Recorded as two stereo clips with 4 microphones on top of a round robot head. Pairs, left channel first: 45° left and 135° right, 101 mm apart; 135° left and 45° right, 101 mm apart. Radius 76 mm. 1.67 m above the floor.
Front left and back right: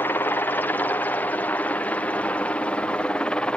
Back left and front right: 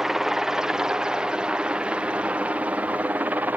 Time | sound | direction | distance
0.0 | a helicopter | 35° left | ?